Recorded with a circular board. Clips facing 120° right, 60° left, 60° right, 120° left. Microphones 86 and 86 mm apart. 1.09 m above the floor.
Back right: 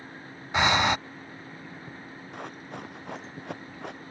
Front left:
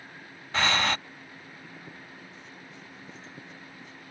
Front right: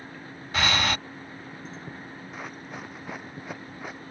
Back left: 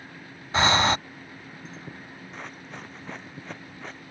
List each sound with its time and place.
0.5 s breathing: 175° left
2.3 s running footsteps: 145° right; by 4.0 s 140° right